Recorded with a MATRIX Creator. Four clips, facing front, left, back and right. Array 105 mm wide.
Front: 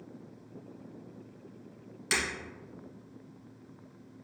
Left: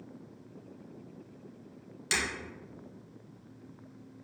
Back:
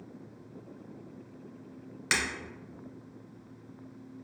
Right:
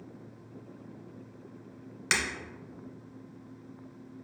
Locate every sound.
2.1 s breaking glass: 130° right, 1.2 m